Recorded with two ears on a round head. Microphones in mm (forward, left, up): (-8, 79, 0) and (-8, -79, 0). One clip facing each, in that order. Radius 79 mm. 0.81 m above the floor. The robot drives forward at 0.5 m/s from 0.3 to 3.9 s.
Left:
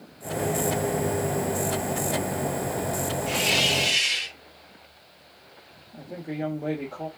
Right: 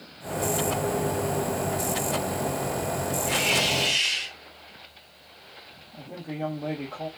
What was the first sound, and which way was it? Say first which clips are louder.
A hiss: even; 45° left (ahead or behind).